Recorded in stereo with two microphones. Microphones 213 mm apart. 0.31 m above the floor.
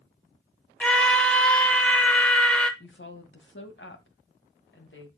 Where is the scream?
5° left (ahead or behind), 1.1 m.